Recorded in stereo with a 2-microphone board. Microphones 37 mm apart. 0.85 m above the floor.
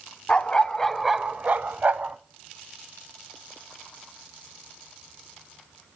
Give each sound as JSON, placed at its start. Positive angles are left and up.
{"t": 0.3, "sound": "a dog barking", "side_deg": 25, "distance_m": 1.3}